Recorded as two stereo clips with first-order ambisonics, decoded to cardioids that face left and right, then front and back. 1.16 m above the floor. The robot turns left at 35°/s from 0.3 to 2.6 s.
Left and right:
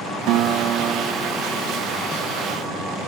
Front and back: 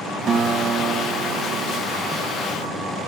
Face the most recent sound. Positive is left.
turn(degrees=165)